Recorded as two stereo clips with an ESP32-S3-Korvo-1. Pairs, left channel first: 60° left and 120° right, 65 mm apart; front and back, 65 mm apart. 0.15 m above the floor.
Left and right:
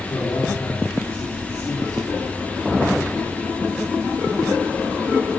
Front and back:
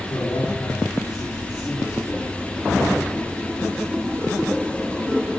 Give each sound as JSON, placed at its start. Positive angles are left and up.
{"t": 0.1, "sound": "a man speaking", "azimuth_deg": 45, "distance_m": 5.5}